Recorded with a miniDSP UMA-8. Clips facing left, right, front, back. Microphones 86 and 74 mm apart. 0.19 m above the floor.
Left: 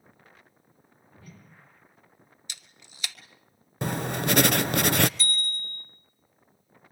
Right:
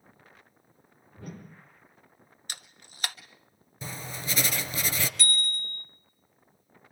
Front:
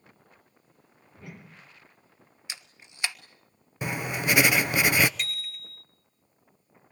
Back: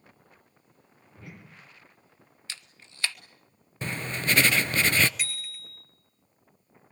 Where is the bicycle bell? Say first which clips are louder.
Right 1 dB, front 1 dB; 95° right, 2.5 m.